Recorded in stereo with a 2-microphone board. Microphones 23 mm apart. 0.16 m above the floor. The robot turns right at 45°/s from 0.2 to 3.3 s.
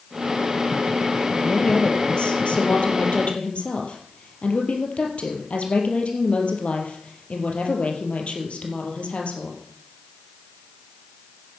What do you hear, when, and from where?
1.4 s a woman speaking: 25° left, 4 m; by 9.6 s 110° left, 4 m